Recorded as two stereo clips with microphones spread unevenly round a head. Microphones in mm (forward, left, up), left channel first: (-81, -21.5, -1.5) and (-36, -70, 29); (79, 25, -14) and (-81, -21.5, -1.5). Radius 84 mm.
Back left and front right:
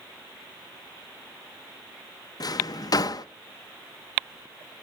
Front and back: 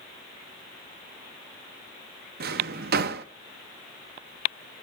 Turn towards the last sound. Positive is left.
turn(degrees=165)